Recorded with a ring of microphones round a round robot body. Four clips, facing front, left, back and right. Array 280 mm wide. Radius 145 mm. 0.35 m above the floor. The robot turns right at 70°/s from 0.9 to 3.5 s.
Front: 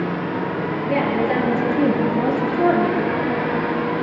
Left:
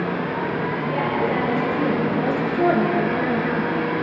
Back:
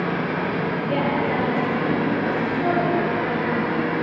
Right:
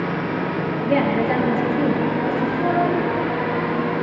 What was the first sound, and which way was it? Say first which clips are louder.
A woman speaking: right 5 dB, front 4 dB; 80° right.